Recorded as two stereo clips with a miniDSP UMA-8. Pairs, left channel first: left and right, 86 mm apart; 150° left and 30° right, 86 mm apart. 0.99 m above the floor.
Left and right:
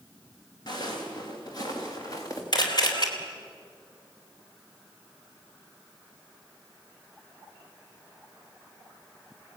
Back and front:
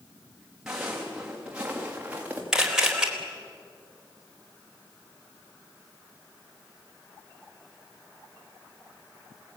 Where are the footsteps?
55° left, 5.5 m; by 2.4 s 40° left, 4.5 m.